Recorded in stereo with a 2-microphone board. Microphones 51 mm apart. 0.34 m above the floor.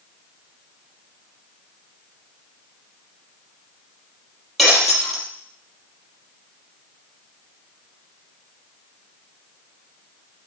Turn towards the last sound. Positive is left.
turn(degrees=5)  # may be behind; listen again after turning